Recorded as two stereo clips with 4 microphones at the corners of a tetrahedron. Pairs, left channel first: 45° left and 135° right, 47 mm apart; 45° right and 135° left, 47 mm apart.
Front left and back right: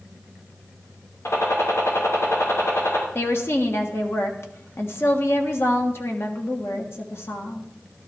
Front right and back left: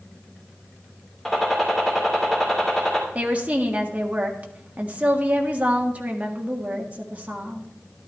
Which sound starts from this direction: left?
A woman speaking, at 3.1 s.